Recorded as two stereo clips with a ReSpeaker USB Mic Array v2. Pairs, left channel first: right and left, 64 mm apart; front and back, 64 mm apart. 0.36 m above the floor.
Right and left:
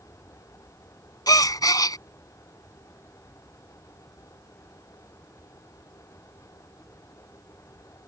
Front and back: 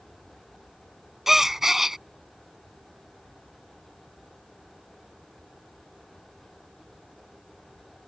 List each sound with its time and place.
1.3 s a gasp: 95° right